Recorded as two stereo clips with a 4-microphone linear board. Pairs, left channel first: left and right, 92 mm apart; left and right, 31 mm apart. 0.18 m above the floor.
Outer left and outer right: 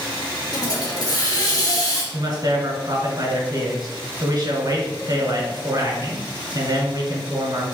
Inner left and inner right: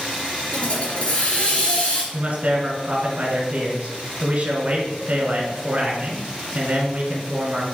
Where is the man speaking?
35° right (ahead or behind), 1.8 m.